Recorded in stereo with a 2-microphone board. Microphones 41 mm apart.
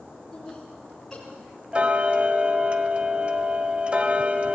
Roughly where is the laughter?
Centre.